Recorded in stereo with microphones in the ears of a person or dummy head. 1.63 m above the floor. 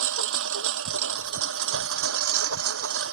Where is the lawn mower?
85° right; by 3.1 s 80° right.